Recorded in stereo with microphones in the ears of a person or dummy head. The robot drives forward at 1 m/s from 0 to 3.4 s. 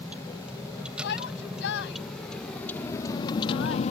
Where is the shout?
65° left (ahead or behind); by 3.8 s 80° left.